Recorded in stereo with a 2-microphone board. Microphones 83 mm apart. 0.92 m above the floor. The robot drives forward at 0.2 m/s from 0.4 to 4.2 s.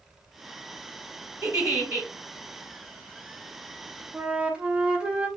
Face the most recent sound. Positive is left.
turn(degrees=-10)  # may be behind; listen again after turning